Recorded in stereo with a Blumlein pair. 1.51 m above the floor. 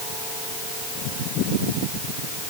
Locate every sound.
Only background noise.